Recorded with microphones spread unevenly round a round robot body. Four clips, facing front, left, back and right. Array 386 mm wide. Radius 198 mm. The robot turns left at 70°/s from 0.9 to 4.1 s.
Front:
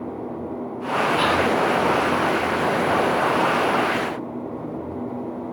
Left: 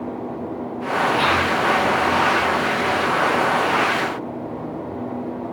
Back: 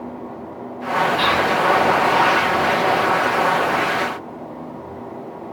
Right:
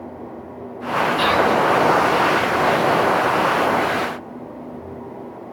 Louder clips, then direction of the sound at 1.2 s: Right 2 dB, back 1 dB; 70° right.